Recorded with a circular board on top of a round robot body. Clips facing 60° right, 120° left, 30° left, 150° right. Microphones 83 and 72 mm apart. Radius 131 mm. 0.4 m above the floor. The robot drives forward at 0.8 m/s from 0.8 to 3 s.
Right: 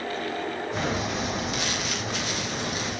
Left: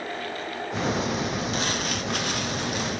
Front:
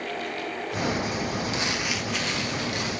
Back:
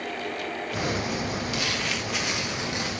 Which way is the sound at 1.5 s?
80° left.